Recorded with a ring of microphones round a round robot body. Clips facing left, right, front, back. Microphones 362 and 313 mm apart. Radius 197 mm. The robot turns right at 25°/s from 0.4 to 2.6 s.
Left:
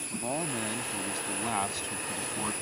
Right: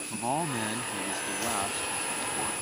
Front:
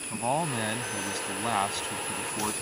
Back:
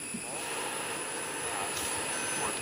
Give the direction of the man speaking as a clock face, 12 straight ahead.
12 o'clock.